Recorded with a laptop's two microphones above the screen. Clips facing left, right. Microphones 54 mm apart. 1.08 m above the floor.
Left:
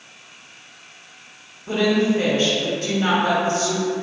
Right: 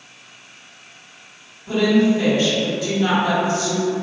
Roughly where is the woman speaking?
Left.